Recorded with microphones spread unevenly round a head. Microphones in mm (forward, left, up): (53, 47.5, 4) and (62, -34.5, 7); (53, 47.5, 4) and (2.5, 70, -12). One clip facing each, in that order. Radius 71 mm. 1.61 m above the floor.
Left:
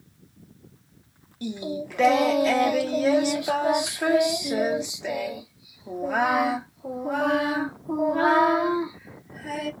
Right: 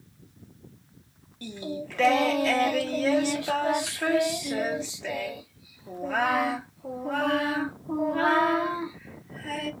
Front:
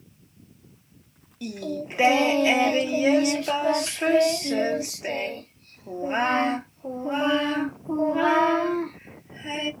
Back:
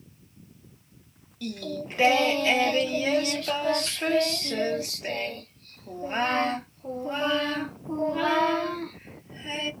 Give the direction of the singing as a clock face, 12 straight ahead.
11 o'clock.